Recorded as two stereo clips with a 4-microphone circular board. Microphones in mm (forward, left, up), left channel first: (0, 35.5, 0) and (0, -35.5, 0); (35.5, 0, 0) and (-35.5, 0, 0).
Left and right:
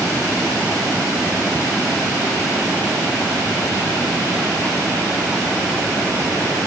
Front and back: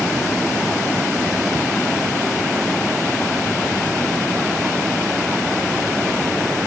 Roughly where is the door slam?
No door slam in this recording.